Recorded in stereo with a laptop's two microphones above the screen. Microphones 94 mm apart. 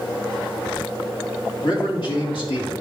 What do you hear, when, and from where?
1.6 s a man speaking: 60° left (ahead or behind), 2.5 m